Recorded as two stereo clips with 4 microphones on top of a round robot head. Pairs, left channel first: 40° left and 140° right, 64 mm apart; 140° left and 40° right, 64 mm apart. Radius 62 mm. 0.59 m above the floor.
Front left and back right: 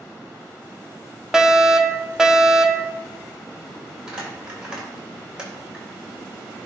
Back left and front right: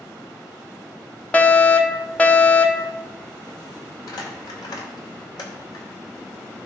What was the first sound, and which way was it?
A fire alarm, 155° left.